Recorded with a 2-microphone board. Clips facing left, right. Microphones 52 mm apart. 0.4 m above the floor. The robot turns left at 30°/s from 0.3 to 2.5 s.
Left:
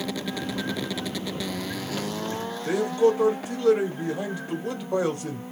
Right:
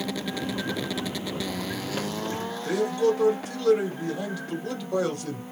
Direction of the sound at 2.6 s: 25° left (ahead or behind).